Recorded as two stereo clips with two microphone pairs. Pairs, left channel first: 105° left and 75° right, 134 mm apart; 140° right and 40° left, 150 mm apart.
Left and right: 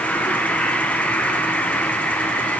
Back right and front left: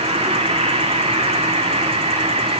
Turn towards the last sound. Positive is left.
turn(degrees=30)